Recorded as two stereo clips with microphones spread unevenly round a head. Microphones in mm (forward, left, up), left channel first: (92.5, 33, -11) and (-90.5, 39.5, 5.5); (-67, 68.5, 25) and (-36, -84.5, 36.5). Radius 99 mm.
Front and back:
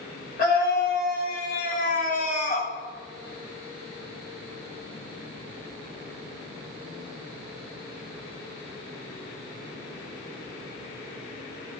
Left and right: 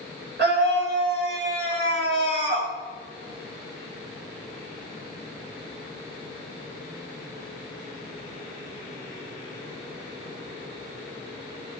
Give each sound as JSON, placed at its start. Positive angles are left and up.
{"t": 0.4, "sound": "a scream", "azimuth_deg": -45, "distance_m": 5.5}